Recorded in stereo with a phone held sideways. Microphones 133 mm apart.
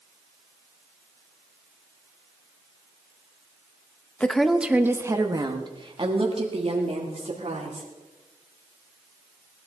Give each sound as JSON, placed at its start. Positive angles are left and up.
{"t": 4.2, "sound": "a woman speaking", "side_deg": 10, "distance_m": 0.9}